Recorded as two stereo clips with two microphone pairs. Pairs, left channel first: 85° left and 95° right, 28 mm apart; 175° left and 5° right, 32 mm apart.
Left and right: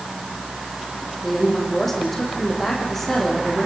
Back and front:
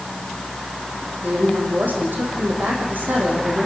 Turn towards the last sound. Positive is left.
turn(degrees=0)